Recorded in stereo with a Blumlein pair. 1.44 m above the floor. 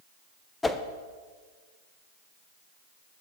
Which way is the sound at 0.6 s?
10° left.